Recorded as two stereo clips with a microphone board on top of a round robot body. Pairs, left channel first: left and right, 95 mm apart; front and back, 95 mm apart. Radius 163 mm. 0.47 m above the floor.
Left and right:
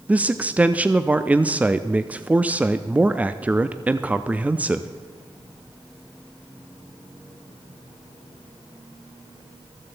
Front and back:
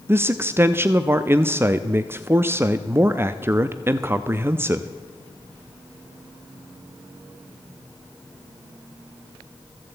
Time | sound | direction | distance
0.1 | a man speaking | 150° right | 0.7 m